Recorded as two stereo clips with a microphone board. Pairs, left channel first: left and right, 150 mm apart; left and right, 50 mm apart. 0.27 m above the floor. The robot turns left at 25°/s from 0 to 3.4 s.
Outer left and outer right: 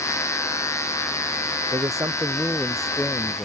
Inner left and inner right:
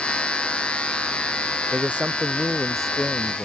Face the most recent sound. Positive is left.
turn(degrees=165)